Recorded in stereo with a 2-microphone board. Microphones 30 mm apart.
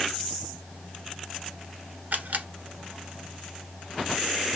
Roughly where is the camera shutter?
Right.